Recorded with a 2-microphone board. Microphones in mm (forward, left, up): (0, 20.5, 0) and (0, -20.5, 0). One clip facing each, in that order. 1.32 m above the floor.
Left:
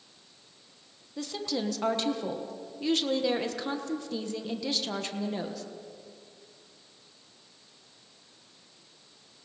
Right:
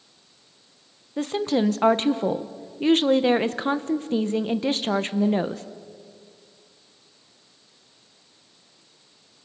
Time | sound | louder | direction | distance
1.2 | a woman speaking | right 10 dB | 40° right (ahead or behind) | 1.2 m